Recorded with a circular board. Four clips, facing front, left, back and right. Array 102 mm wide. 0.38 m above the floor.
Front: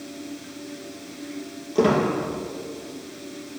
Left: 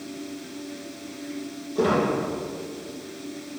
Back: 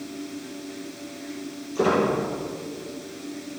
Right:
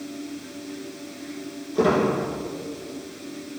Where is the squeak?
15° right, 2.5 m.